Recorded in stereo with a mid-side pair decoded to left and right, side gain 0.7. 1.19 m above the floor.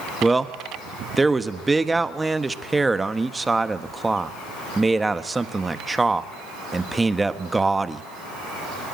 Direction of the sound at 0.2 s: 15° right.